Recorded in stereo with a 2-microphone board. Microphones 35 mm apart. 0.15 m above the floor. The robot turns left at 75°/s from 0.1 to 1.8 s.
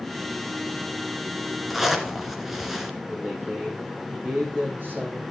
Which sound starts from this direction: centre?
A zipper, at 1.7 s.